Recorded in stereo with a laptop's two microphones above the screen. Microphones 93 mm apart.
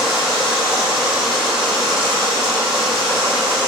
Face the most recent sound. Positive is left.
turn(degrees=-5)  # may be behind; listen again after turning